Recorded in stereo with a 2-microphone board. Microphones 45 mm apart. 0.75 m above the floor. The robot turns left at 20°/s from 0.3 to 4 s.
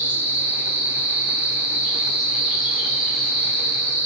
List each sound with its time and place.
0.0 s an insect: 135° right, 1.1 m; by 4.1 s 155° left, 1.1 m